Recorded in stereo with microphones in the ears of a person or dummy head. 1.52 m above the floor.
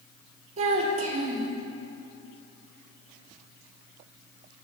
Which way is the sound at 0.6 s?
40° right (ahead or behind).